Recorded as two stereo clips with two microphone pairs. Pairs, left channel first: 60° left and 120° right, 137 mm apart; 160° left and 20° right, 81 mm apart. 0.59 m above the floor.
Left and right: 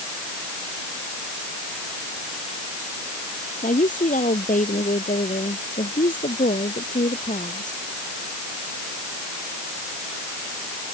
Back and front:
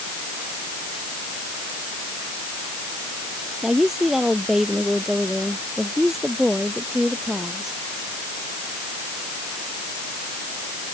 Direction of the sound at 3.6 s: 65° left.